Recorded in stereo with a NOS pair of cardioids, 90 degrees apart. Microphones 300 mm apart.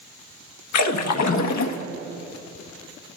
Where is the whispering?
I don't hear whispering.